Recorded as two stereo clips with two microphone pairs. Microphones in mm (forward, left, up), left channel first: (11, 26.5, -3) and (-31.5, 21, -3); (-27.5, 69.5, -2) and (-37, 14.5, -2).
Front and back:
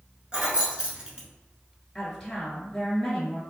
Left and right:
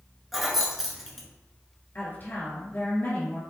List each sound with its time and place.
0.3 s keys jangling: 175° left, 0.9 m
1.9 s a woman speaking: 85° left, 1.9 m